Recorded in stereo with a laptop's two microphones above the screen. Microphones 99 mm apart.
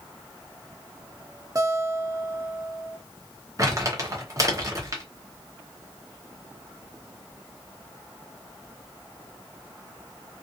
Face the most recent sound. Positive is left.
turn(degrees=-35)  # may be behind; listen again after turning